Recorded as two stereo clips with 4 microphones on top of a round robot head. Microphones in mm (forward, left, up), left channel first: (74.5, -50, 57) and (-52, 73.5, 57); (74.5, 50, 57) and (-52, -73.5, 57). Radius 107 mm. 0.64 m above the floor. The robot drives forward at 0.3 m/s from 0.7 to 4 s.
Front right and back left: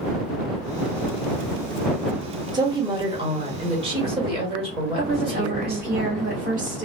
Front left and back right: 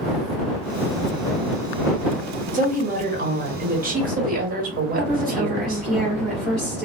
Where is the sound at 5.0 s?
130° left, 1.1 m.